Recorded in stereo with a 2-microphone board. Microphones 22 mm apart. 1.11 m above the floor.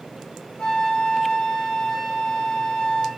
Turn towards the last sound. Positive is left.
turn(degrees=60)  # may be behind; listen again after turning